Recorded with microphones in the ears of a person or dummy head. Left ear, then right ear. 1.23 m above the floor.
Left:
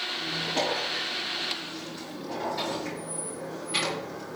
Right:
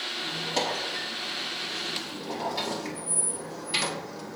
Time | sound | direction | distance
0.1 | a squeak | 40° right (ahead or behind) | 6.5 m